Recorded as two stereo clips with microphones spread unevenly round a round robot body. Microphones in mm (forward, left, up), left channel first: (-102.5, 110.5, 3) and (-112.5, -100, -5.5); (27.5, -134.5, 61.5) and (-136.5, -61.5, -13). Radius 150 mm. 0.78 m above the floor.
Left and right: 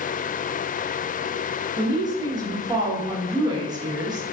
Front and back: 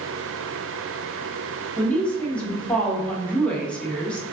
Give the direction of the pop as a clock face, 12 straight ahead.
No pop in this recording.